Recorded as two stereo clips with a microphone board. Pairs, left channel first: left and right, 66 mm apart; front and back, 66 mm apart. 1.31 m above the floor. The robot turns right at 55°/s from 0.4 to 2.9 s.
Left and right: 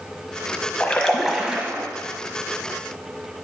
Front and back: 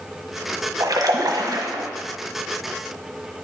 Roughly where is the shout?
I don't hear a shout.